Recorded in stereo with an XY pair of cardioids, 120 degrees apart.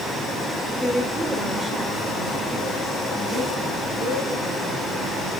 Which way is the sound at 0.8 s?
5° left.